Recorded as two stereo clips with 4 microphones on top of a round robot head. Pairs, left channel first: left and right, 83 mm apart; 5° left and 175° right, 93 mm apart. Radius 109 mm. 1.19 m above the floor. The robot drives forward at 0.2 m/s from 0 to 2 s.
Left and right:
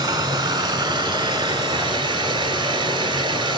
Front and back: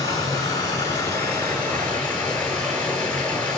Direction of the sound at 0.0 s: 60° right.